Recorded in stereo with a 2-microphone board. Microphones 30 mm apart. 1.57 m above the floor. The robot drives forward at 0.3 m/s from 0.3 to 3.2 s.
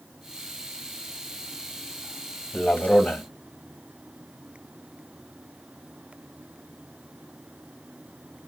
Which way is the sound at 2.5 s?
75° left (ahead or behind).